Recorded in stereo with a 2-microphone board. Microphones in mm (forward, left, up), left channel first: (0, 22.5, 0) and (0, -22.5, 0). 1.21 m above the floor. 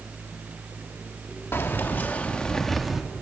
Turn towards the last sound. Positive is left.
turn(degrees=-5)  # may be behind; listen again after turning